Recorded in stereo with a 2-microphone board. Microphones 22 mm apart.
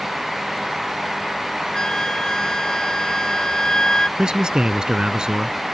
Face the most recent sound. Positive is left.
turn(degrees=-40)  # may be behind; listen again after turning